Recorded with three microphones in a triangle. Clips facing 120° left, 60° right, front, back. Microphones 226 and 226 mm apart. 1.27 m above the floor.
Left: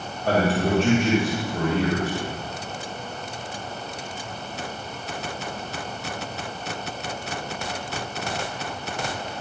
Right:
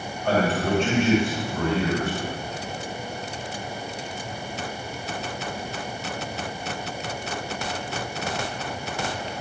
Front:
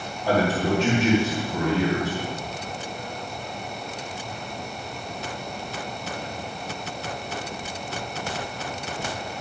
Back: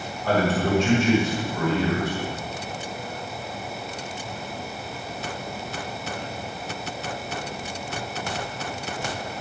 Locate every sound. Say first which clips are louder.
0.2 s a man speaking: left 1 dB, even; 70° left, 3 m